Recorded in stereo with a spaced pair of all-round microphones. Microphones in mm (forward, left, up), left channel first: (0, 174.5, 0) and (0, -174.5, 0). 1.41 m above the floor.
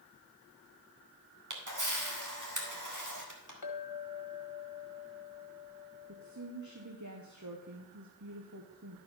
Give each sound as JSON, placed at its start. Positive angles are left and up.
{"t": 1.5, "sound": "a camera shutter", "side_deg": -55, "distance_m": 1.8}
{"t": 3.6, "sound": "a clink", "side_deg": 75, "distance_m": 1.5}
{"t": 6.1, "sound": "a woman speaking", "side_deg": -50, "distance_m": 1.1}